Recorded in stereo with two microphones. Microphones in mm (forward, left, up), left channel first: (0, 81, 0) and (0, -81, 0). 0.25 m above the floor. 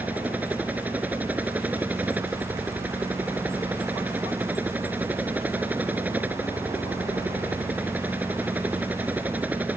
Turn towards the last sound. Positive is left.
turn(degrees=-10)  # may be behind; listen again after turning